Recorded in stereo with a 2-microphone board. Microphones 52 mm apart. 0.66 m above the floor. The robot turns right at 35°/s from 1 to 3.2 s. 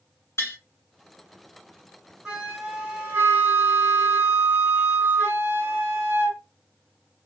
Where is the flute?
175° right, 1.1 m; by 6.4 s 140° right, 1.1 m.